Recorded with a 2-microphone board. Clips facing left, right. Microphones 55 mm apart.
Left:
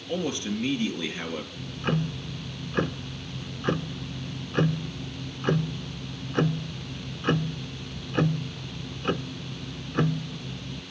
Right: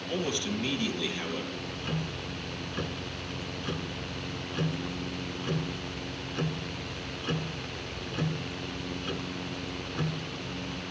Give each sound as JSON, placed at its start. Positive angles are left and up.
{"t": 0.1, "sound": "a man speaking", "side_deg": 25, "distance_m": 3.0}
{"t": 1.6, "sound": "ticking", "side_deg": 45, "distance_m": 0.5}